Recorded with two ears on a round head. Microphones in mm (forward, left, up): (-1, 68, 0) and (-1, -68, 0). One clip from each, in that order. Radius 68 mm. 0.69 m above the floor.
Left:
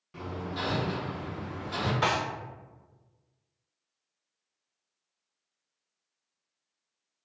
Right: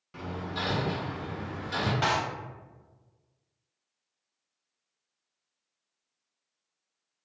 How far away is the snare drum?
About 1.2 m.